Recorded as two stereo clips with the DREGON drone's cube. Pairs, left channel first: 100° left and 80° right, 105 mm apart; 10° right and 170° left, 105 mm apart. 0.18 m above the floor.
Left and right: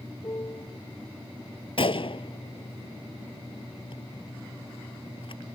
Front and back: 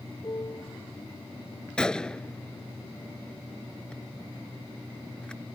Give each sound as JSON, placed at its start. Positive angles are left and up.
{"t": 0.2, "sound": "a piano", "azimuth_deg": 45}
{"t": 1.8, "sound": "a gunshot", "azimuth_deg": 70}